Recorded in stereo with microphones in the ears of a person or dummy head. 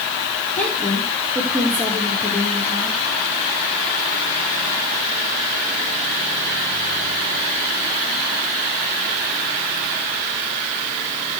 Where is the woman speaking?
5° left (ahead or behind), 4 m.